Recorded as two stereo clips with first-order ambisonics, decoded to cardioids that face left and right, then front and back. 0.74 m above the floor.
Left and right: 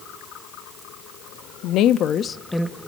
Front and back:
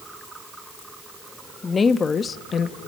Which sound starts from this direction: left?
A woman speaking, at 1.6 s.